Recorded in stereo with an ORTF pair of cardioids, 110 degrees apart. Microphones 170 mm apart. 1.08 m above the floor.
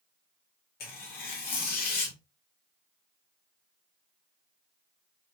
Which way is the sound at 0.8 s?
70° left.